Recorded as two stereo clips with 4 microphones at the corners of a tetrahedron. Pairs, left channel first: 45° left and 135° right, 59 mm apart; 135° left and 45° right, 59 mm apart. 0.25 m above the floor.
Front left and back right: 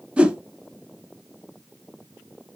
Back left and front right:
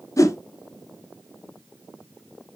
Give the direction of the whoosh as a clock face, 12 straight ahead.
7 o'clock.